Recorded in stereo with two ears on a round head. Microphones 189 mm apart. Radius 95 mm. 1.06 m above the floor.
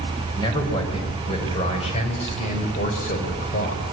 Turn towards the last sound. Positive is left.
turn(degrees=40)  # may be behind; listen again after turning